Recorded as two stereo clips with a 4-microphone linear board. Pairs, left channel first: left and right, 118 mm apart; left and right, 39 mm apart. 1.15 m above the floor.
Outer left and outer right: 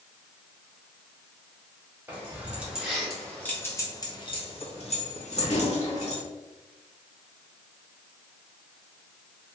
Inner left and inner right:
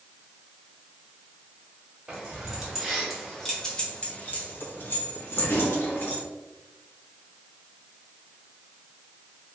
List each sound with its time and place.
2.1 s keys jangling: 15° right (ahead or behind), 1.3 m; by 6.2 s 80° left, 1.3 m